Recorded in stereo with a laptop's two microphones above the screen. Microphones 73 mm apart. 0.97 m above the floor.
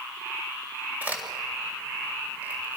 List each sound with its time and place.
1.0 s a crack: 25° right (ahead or behind), 6 m